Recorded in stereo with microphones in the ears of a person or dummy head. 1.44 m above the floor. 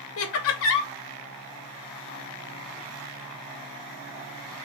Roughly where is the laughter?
Left.